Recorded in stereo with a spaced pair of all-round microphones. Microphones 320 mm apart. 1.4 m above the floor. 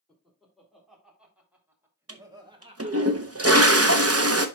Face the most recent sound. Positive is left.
turn(degrees=-50)  # may be behind; listen again after turning